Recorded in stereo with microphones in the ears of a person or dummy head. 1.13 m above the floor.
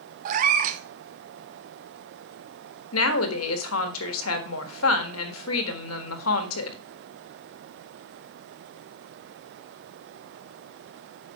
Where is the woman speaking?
85° left, 1.5 m.